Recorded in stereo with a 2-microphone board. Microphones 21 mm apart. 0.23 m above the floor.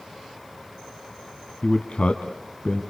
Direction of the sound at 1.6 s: 50° left (ahead or behind).